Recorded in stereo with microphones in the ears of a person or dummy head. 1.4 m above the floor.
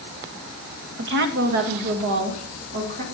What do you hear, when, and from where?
1.0 s a woman speaking: 65° right (ahead or behind), 1.0 m; by 3.0 s 45° right (ahead or behind), 2.5 m